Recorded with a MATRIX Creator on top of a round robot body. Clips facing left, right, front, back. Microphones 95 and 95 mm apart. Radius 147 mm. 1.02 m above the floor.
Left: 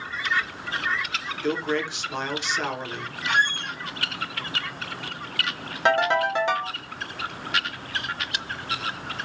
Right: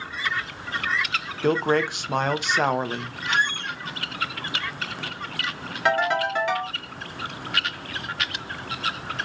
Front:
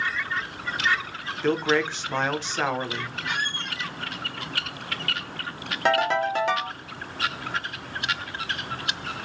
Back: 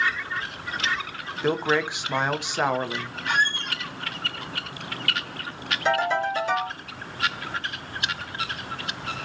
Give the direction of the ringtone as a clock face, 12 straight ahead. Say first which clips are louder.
Left 1 dB, front 1 dB; 11 o'clock.